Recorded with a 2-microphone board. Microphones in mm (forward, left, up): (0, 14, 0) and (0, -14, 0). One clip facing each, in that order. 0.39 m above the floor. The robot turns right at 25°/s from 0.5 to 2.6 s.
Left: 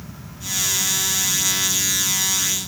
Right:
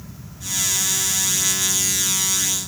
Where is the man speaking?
No man speaking in this recording.